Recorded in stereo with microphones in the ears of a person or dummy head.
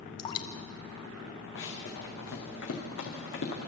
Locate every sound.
0.2 s dripping: 25° left (ahead or behind), 1.0 m
1.6 s running footsteps: 75° left (ahead or behind), 4 m; by 3.7 s 65° left (ahead or behind), 4 m